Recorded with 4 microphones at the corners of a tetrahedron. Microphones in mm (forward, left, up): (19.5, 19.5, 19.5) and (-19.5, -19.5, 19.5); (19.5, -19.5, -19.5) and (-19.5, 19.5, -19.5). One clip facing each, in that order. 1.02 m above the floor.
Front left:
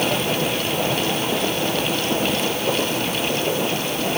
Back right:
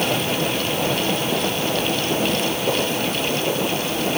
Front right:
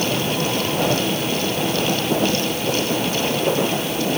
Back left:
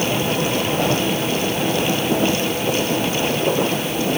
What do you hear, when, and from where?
Only background noise.